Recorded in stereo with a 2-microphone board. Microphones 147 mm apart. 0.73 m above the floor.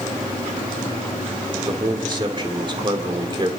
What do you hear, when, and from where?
1.6 s a man speaking: 30° right (ahead or behind), 2.5 m